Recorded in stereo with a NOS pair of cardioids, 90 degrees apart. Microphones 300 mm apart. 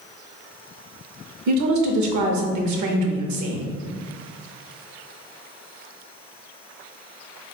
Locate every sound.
1.5 s a woman speaking: 70° right, 1.0 m